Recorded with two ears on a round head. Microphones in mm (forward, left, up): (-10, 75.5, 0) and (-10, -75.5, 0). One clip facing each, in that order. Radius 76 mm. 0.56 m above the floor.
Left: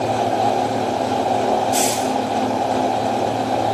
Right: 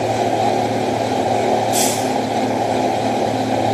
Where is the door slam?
I don't hear a door slam.